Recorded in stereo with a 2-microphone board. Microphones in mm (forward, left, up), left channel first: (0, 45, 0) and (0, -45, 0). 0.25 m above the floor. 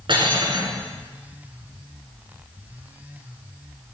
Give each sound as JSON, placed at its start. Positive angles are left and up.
{"t": 0.1, "sound": "cutlery clinking", "side_deg": -60, "distance_m": 1.6}